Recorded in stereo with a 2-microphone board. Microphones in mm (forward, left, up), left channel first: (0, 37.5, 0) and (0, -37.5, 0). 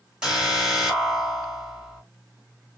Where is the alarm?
10° right (ahead or behind), 4 m.